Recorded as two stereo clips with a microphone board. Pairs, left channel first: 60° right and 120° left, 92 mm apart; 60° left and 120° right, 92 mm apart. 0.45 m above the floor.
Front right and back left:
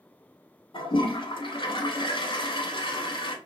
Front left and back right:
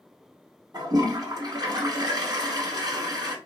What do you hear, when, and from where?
0.7 s a toilet flushing: 80° right, 0.9 m